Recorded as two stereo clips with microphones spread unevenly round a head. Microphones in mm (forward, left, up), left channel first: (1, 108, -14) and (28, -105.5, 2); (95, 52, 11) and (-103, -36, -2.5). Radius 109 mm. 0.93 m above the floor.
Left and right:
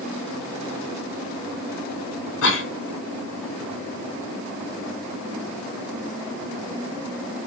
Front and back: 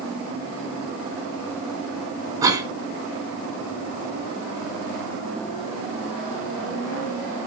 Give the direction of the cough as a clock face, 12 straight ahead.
8 o'clock.